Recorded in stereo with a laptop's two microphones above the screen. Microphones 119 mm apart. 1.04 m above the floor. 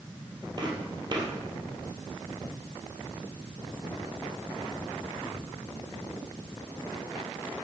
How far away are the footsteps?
About 1.8 m.